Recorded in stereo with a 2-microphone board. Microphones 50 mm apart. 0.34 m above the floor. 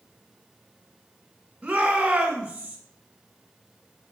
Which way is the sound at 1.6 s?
20° right (ahead or behind).